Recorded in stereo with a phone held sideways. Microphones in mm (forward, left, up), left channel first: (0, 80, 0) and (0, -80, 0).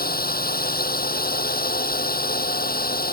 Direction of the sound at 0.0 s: 70° left (ahead or behind).